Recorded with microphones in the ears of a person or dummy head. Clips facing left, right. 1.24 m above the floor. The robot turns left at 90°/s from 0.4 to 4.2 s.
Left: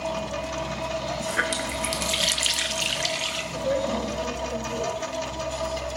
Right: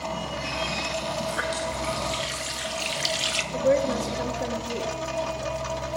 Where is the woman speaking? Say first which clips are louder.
Right 4 dB; 45° right, 2 m; by 4.9 s 105° right, 2 m.